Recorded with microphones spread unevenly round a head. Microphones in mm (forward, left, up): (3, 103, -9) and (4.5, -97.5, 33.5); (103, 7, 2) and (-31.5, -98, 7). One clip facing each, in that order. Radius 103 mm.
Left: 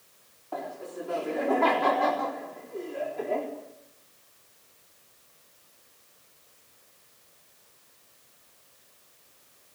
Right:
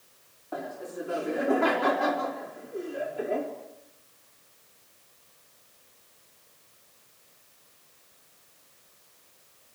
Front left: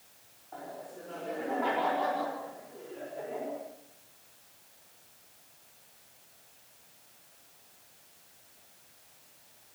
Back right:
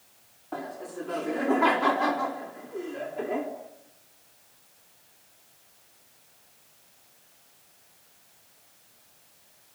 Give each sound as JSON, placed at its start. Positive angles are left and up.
{"t": 0.5, "sound": "laughter", "azimuth_deg": -170, "distance_m": 3.5}